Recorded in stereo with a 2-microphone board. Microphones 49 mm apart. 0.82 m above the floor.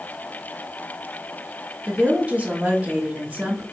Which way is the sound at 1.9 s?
30° right (ahead or behind).